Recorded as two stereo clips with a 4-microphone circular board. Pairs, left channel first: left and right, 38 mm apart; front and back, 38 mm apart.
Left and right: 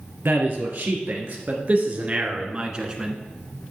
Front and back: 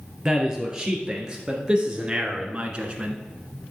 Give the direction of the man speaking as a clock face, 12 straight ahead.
4 o'clock.